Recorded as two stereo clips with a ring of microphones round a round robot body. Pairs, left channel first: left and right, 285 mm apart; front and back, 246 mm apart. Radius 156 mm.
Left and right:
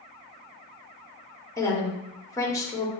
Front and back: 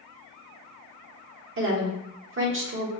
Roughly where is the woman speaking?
Behind.